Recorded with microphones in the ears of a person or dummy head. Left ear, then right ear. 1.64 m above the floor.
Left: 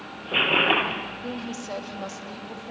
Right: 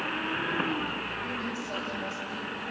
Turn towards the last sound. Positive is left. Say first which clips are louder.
# even
turn(degrees=80)